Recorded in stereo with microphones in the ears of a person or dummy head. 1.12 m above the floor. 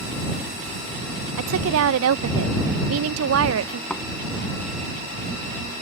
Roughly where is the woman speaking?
Right.